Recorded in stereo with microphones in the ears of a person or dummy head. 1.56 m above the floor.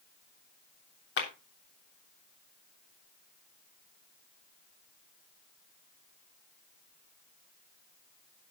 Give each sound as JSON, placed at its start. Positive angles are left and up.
{"t": 1.2, "sound": "a clap", "side_deg": 65, "distance_m": 3.0}